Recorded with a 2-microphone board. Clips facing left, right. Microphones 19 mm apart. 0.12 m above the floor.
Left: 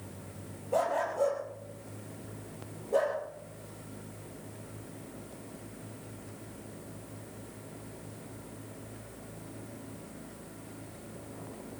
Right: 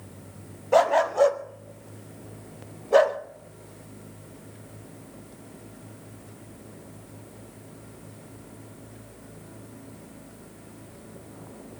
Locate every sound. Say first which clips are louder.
0.7 s a dog barking: right 10 dB; 50° right (ahead or behind), 1.3 m